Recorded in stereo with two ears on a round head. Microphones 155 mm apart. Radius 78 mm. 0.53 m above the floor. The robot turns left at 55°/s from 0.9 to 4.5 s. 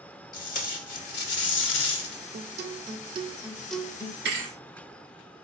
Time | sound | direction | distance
0.3 | tape being pulled | 130° left | 1.0 m
2.3 | a guitar | 105° right | 0.5 m
4.2 | a thud | 65° right (ahead or behind) | 1.9 m